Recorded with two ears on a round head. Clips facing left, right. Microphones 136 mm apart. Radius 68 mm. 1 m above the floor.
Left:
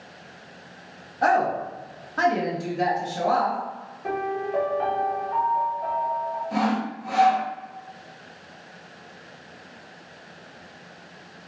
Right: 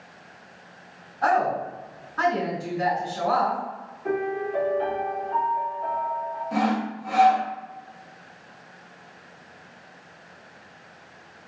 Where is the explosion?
I don't hear an explosion.